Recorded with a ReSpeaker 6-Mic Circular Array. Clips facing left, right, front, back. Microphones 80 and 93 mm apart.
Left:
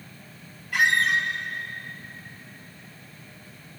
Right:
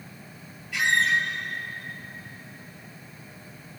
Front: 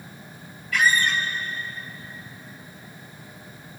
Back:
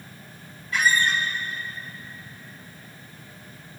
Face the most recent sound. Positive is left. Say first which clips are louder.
# left 1 dB, front 1 dB
turn(degrees=120)